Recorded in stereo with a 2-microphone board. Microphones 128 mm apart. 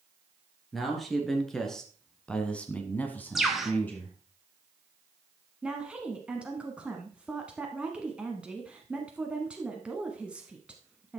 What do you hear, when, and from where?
0.7 s a man speaking: centre (ahead or behind), 3 m; by 4.2 s 15° left (ahead or behind), 2 m
3.4 s a bird: centre (ahead or behind), 1.5 m
5.6 s a woman speaking: 10° right (ahead or behind), 1.2 m